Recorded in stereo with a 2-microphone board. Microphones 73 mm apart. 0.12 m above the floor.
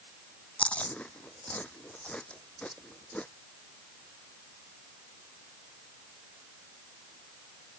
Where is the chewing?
15° left (ahead or behind).